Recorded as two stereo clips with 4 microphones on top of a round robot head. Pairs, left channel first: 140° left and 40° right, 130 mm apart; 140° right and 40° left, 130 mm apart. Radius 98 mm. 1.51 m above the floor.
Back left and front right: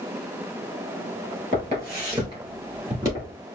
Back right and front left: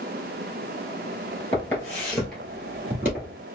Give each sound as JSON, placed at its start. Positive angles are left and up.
{"t": 1.5, "sound": "footsteps", "azimuth_deg": -70, "distance_m": 1.9}